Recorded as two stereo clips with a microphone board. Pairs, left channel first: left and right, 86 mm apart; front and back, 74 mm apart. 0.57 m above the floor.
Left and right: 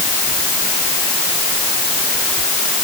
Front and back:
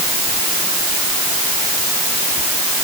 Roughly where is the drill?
No drill in this recording.